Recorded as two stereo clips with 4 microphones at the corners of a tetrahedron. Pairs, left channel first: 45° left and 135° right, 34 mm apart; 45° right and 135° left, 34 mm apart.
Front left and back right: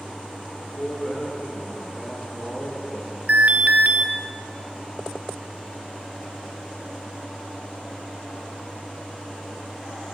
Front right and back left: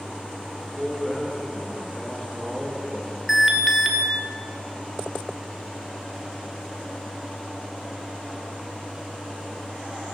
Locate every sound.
0.5 s a man speaking: 50° left, 1.4 m
3.3 s an alarm: 140° right, 0.8 m